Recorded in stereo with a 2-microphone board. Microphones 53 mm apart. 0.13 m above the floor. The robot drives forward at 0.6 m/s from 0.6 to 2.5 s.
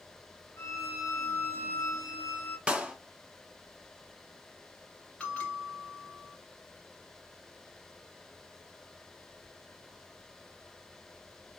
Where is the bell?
20° left (ahead or behind), 2 m.